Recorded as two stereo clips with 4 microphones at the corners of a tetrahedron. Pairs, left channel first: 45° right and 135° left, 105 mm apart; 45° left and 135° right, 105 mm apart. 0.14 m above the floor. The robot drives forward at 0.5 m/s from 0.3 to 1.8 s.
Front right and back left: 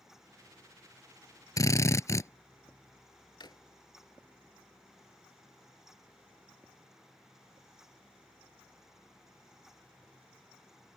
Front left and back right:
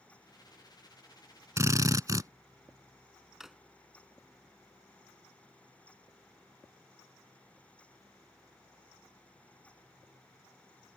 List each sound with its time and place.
1.6 s a drill: 85° right; by 2.3 s 90° right
3.4 s a drawer: 50° right